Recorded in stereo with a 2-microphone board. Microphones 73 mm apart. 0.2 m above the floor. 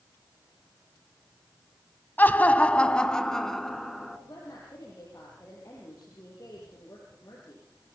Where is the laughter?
25° left (ahead or behind), 1.0 m; by 4.2 s centre (ahead or behind), 1.9 m.